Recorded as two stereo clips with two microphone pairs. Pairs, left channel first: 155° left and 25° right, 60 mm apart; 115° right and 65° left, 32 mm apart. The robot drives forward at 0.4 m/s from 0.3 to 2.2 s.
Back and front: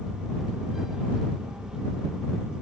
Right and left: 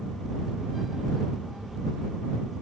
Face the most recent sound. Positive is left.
No sound to turn to.